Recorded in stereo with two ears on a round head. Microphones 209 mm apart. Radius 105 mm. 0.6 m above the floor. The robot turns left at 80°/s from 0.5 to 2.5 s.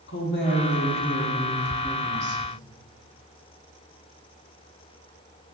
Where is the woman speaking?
95° left, 1.5 m; by 2.4 s 55° right, 1.5 m.